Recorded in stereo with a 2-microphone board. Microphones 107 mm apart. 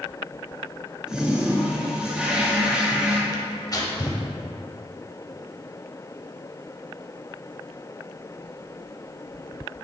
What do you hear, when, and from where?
1.1 s a toilet flushing: 10° right (ahead or behind), 1.3 m
3.3 s tearing paper: 35° left (ahead or behind), 1.3 m